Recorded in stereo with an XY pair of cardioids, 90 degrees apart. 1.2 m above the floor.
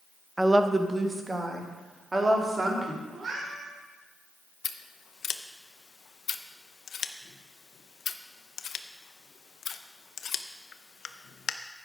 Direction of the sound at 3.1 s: 50° right.